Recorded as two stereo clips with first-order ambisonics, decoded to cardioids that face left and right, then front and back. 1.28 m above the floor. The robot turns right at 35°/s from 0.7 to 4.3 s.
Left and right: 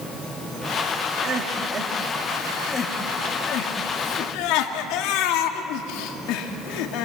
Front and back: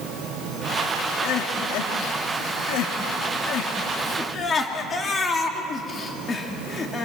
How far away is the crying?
About 1.9 m.